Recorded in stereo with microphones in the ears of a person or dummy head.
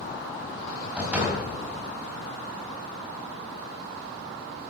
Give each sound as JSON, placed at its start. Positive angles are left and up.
{"t": 1.0, "sound": "a door slam", "side_deg": -10, "distance_m": 5.0}